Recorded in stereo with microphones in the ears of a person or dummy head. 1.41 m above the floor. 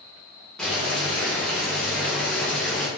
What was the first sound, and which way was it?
Boiling, 5° left (ahead or behind).